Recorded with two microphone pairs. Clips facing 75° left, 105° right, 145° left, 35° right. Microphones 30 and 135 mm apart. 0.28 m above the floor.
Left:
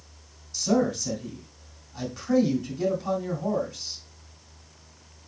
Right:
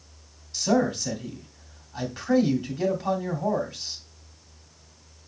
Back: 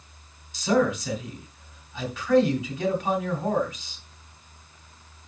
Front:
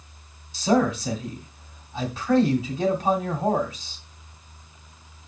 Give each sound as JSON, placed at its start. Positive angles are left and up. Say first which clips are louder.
{"t": 0.5, "sound": "a man speaking", "louder": "right 1 dB, front 1 dB", "azimuth_deg": -80, "distance_m": 2.5}